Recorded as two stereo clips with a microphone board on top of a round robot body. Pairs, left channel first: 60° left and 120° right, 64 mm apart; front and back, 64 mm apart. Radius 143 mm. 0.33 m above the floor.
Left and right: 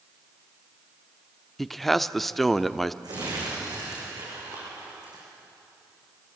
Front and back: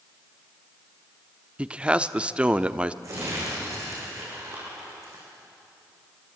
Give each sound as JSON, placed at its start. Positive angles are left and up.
{"t": 1.6, "sound": "a man speaking", "azimuth_deg": 145, "distance_m": 0.9}
{"t": 3.0, "sound": "crumpling", "azimuth_deg": -140, "distance_m": 9.0}